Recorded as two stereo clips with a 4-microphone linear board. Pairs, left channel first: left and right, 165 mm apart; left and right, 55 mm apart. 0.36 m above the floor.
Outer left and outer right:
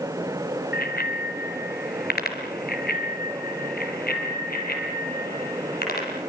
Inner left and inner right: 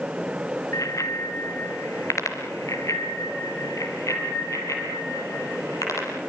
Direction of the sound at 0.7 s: 65° left (ahead or behind).